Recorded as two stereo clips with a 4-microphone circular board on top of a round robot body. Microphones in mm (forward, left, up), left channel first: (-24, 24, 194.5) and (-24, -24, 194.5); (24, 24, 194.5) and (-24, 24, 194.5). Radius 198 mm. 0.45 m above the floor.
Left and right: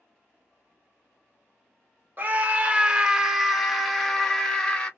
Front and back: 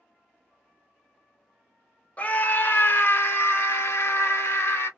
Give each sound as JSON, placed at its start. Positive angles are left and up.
{"t": 2.2, "sound": "a scream", "azimuth_deg": -50, "distance_m": 1.0}